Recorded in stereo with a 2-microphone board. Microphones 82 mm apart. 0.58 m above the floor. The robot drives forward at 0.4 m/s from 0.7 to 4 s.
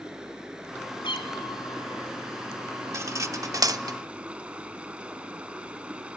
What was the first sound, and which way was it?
Running water, 10° right (ahead or behind).